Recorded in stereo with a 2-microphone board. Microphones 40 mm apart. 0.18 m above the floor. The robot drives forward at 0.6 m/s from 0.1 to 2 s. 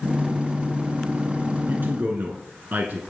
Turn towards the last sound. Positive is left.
turn(degrees=-55)  # may be behind; listen again after turning